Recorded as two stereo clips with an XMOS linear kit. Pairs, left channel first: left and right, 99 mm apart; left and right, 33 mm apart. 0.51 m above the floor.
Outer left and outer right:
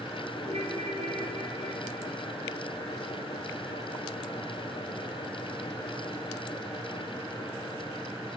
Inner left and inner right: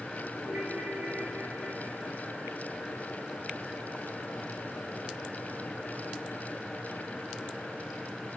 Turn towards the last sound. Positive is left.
turn(degrees=-65)  # may be behind; listen again after turning